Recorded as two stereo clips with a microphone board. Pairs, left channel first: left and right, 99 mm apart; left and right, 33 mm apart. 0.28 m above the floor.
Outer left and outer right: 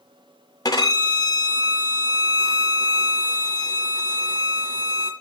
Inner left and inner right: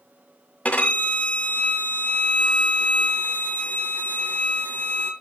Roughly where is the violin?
Left.